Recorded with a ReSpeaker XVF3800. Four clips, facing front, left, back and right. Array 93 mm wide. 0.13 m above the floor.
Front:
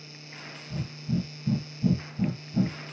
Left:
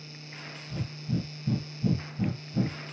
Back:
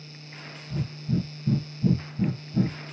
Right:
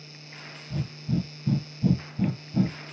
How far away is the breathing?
About 1.4 m.